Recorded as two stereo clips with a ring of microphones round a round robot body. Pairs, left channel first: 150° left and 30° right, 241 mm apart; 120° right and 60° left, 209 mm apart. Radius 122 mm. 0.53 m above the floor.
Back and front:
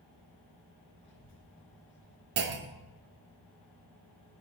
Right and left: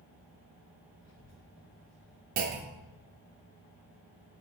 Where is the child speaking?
165° right, 1.8 m.